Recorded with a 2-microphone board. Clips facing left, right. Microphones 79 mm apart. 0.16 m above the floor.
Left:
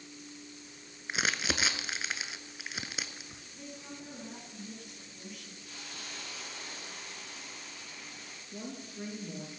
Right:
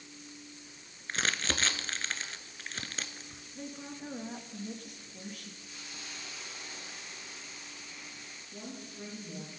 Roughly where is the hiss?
Left.